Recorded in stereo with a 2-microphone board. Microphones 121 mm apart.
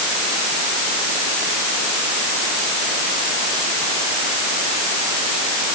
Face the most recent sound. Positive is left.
No sound to turn to.